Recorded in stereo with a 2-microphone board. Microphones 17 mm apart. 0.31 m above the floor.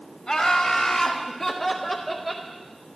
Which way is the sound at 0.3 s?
40° left (ahead or behind).